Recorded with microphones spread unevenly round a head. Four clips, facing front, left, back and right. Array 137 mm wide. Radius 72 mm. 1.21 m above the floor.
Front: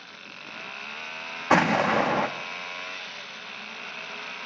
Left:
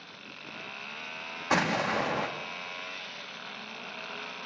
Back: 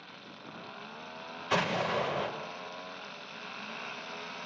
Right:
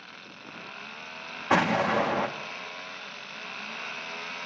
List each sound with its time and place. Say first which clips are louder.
1.5 s an explosion: right 4 dB, front 9 dB; 15° right, 2 m